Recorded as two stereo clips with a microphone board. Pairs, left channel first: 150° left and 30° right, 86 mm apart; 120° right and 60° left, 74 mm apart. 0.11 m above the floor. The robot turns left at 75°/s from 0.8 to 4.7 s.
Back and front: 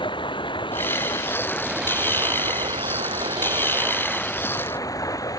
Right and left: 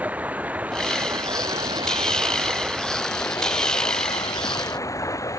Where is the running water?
130° left; by 5.4 s 165° right.